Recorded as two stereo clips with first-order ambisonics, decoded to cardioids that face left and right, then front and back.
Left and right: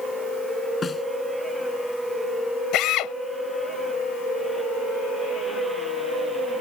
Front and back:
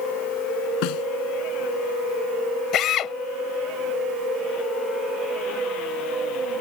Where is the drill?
50° left.